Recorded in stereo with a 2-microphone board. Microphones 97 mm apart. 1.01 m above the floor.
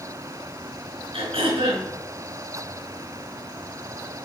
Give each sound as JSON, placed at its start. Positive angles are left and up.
{"t": 1.1, "sound": "throat clearing", "side_deg": -85, "distance_m": 4.5}